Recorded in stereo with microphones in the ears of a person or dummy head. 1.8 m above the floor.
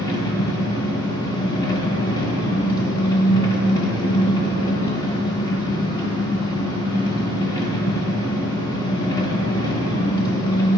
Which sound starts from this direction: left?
An engine running, at 0.0 s.